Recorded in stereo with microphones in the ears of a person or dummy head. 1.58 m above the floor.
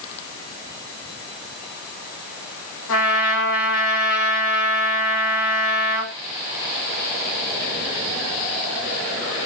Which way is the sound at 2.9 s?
70° left (ahead or behind).